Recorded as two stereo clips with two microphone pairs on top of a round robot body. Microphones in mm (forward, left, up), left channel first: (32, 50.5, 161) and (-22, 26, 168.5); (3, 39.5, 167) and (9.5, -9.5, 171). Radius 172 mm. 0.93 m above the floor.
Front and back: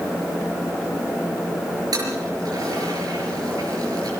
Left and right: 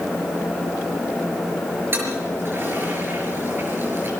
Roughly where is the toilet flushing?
Behind right.